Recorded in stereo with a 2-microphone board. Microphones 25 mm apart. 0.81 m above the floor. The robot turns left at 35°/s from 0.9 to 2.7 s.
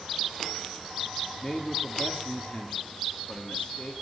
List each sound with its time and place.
1.4 s a man speaking: 160° left, 1.9 m; by 3.9 s 115° left, 1.9 m